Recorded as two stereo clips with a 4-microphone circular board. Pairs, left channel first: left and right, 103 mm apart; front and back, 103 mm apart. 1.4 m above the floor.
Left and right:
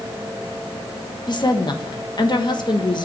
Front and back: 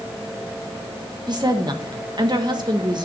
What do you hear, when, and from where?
1.3 s a woman speaking: 135° left, 1.4 m